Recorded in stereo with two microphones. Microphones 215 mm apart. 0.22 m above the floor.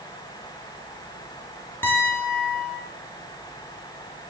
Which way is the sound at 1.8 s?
10° left (ahead or behind).